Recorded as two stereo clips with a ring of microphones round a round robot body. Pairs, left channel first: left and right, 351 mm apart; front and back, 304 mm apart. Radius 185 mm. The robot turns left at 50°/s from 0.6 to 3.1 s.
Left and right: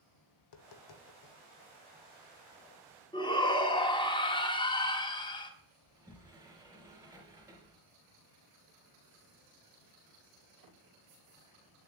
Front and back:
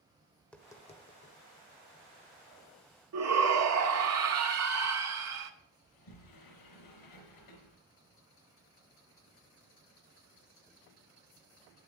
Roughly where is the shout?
Behind.